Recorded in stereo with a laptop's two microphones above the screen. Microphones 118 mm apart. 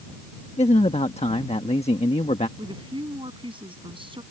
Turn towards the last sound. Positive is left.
turn(degrees=-45)  # may be behind; listen again after turning